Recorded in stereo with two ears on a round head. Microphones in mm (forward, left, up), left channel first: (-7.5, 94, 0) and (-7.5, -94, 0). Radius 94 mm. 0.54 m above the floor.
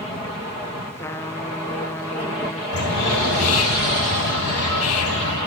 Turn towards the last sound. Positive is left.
turn(degrees=80)